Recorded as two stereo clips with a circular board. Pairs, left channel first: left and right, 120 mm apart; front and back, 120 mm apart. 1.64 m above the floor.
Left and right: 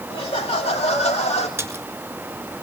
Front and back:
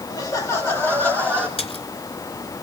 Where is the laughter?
50° left, 2.5 m; by 1.5 s 80° left, 4 m.